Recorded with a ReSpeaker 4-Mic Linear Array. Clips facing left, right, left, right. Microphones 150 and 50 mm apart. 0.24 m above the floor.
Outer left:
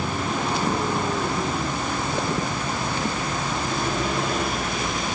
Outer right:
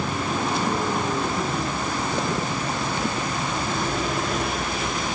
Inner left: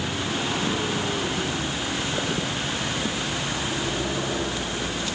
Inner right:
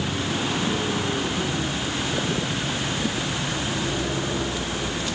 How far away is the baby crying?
No baby crying in this recording.